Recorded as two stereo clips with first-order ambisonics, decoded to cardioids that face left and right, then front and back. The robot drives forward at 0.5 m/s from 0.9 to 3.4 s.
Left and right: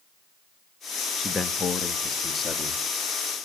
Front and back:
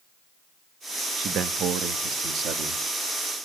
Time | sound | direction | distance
1.2 | a man speaking | 160° left | 1.0 m